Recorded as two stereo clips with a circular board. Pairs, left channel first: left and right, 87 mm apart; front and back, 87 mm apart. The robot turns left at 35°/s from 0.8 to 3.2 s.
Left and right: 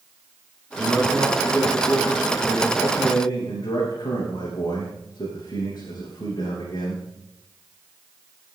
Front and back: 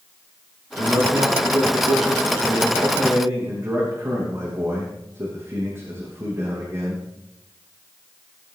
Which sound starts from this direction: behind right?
A man speaking, at 0.8 s.